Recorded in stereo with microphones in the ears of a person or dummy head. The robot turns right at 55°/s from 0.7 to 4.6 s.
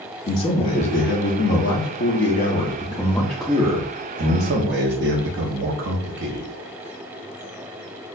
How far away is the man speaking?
About 0.9 m.